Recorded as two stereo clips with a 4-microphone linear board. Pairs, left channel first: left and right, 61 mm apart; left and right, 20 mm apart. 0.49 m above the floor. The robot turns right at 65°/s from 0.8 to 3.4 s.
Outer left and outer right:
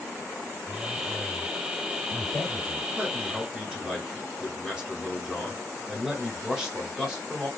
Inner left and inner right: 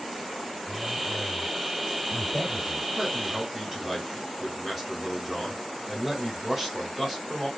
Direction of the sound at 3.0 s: 25° right (ahead or behind).